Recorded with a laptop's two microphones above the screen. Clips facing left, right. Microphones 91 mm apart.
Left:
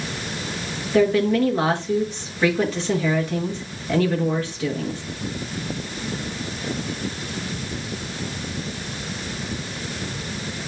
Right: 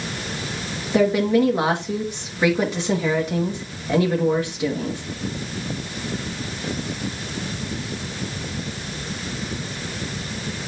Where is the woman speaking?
15° right (ahead or behind), 1.5 m.